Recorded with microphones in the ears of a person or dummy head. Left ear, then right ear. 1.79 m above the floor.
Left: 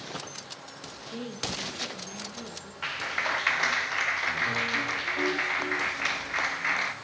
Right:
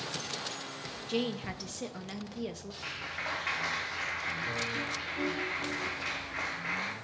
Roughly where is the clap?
Left.